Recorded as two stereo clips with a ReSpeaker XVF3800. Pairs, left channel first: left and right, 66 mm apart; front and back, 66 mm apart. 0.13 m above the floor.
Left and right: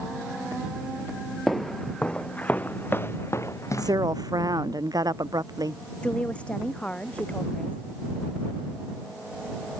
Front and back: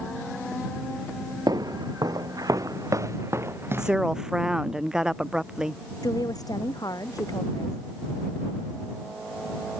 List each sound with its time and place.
1.5 s footsteps: 175° left; by 4.0 s 125° left
3.8 s a woman speaking: 100° right
6.0 s a woman speaking: 20° left